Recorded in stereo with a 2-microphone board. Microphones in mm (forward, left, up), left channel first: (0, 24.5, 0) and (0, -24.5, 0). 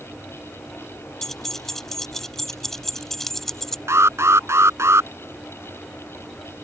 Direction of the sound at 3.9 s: 70° right (ahead or behind).